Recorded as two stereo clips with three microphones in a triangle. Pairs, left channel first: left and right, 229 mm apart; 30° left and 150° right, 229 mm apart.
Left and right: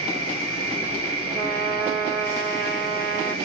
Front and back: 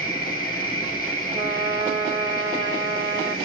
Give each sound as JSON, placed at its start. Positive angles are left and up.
{"t": 0.0, "sound": "an insect", "azimuth_deg": 80, "distance_m": 2.5}
{"t": 1.3, "sound": "a trumpet", "azimuth_deg": 135, "distance_m": 1.8}